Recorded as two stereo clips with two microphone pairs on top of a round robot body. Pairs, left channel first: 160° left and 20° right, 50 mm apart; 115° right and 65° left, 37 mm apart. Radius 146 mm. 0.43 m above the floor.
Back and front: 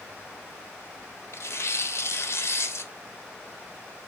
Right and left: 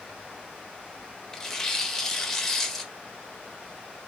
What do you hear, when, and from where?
1.3 s tearing paper: 160° left, 1.1 m